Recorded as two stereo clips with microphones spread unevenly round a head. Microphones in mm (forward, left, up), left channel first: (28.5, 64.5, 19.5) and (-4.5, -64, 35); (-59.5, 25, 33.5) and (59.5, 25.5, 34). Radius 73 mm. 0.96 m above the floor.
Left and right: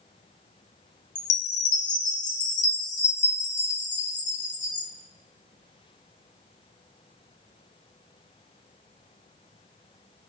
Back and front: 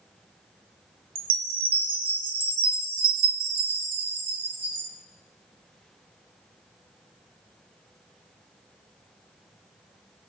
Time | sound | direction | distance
1.1 | a chime | 40° left | 1.5 m